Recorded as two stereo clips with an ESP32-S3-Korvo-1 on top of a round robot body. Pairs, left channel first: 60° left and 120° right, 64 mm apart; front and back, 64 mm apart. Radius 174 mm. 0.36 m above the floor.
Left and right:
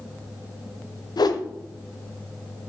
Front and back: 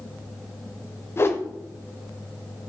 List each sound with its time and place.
1.2 s a whoosh: 55° left, 0.7 m